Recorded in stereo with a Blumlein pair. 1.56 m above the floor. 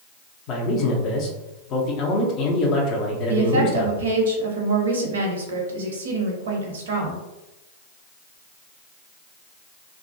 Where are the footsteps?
No footsteps in this recording.